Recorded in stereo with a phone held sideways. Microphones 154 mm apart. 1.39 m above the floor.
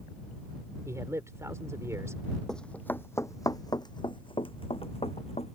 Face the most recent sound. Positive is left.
turn(degrees=45)  # may be behind; listen again after turning